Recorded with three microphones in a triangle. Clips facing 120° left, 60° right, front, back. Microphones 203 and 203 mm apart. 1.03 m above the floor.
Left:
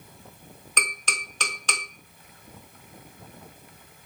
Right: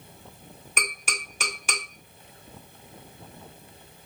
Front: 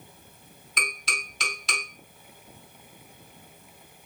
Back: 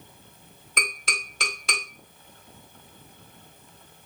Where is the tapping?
140° right, 2 m.